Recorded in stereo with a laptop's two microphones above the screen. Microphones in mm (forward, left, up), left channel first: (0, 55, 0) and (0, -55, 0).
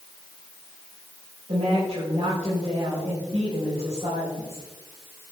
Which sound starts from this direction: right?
A woman speaking, at 1.5 s.